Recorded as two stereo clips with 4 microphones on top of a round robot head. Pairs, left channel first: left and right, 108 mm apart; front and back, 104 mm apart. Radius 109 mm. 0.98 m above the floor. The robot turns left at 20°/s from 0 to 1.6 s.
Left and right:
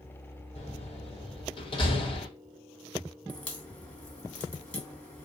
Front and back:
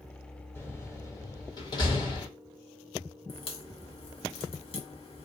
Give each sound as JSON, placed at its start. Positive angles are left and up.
{"t": 0.6, "sound": "a door slam", "azimuth_deg": 70, "distance_m": 1.3}
{"t": 3.3, "sound": "a crack", "azimuth_deg": 15, "distance_m": 1.6}